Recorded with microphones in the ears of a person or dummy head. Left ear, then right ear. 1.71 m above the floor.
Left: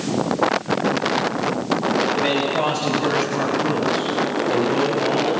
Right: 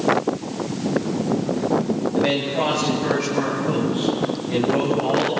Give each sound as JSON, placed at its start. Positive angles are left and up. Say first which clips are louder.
{"t": 2.1, "sound": "a man speaking", "louder": "left 1 dB", "side_deg": 35, "distance_m": 2.0}